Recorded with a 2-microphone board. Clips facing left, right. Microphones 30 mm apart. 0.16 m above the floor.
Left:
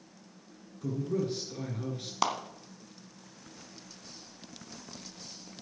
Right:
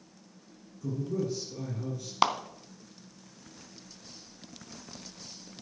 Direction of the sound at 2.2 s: 30° right (ahead or behind).